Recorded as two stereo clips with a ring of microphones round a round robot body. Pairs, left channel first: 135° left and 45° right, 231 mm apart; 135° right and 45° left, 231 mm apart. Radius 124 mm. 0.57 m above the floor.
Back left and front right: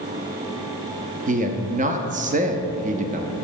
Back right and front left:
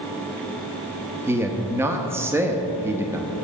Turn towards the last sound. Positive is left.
turn(degrees=-25)